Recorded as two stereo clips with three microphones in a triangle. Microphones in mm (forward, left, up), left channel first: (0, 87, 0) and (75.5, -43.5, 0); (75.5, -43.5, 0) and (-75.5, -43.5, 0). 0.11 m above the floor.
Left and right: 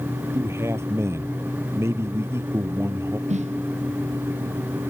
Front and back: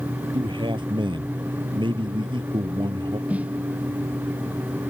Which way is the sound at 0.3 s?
130° right.